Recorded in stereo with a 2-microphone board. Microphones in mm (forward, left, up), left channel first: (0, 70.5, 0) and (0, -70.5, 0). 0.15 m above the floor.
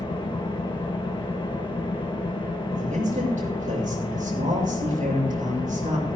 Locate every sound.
0.0 s an engine running: 35° left (ahead or behind), 2.5 m
2.8 s a man speaking: 65° right (ahead or behind), 5.5 m